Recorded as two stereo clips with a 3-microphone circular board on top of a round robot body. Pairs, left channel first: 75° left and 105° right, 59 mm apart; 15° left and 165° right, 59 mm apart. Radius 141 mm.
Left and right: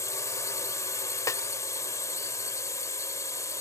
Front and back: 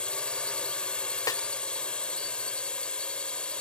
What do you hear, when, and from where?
0.0 s a drone: 85° left
1.3 s a snare drum: 40° left